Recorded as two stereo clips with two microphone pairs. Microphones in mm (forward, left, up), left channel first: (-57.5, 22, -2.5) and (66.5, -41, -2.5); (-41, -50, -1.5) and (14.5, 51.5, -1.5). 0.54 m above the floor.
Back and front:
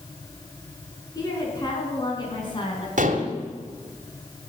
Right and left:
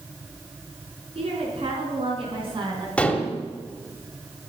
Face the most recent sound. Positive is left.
turn(degrees=-40)